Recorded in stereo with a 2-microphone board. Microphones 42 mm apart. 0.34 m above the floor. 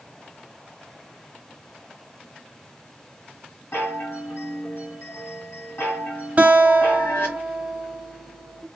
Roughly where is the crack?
No crack in this recording.